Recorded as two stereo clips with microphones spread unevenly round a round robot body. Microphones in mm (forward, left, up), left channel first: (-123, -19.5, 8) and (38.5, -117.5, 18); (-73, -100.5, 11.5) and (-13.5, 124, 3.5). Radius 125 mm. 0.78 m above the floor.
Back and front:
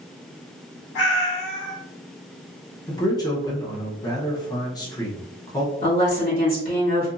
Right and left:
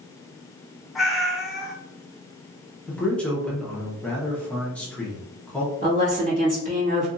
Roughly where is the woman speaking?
Behind left.